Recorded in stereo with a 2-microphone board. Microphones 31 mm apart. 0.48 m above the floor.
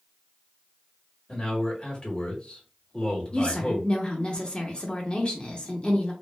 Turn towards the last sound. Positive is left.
turn(degrees=30)  # may be behind; listen again after turning